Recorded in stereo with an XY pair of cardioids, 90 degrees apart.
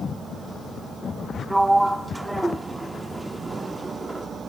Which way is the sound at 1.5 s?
10° right.